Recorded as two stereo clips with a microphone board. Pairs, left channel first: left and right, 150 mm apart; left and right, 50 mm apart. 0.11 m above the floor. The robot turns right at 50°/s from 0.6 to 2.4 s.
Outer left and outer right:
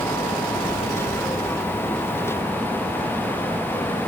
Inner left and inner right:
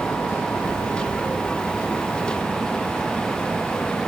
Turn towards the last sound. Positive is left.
No sound to turn to.